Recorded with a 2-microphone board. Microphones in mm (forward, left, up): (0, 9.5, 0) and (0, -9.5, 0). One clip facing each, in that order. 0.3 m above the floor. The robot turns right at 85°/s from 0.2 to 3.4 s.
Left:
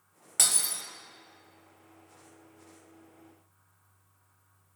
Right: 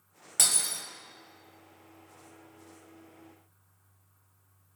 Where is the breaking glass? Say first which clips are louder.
Even; 175° left, 0.7 m; by 0.8 s 150° right, 0.7 m.